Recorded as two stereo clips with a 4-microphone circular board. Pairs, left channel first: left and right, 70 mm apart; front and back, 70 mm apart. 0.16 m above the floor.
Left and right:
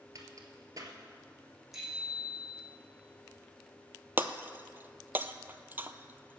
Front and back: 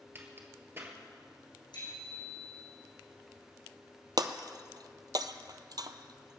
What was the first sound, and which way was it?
A crack, 125° right.